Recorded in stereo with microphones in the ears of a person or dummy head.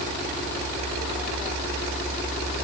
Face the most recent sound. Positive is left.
No sound to turn to.